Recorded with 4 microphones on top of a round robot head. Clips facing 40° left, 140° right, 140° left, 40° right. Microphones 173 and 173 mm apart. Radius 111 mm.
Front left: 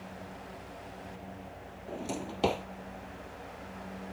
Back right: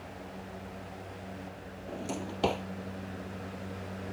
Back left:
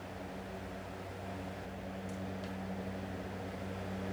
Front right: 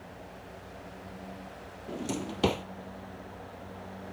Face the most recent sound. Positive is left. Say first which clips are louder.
# even, front right 11 dB
turn(degrees=-50)